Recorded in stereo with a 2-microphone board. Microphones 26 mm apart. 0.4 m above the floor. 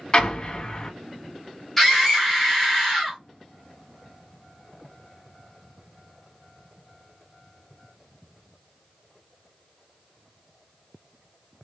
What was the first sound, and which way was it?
An explosion, 35° left (ahead or behind).